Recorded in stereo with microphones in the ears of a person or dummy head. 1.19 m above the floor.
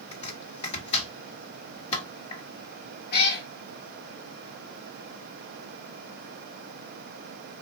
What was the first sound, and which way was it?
Chopping, 30° left (ahead or behind).